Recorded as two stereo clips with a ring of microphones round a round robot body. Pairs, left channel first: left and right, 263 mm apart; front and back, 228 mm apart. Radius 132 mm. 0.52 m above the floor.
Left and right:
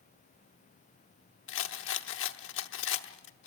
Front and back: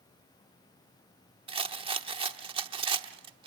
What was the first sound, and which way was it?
A rattle, 120° left.